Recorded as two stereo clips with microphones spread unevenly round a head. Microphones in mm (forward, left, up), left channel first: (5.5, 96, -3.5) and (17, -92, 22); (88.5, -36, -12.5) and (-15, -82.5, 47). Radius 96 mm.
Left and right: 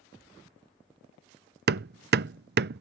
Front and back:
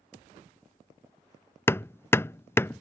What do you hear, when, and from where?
1.7 s hammering: 50° right